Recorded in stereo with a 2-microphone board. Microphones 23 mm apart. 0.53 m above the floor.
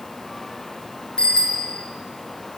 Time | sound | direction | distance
1.2 | a bicycle bell | 30° left (ahead or behind) | 5.5 m